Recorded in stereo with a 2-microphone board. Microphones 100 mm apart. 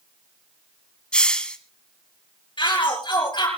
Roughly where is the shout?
Left.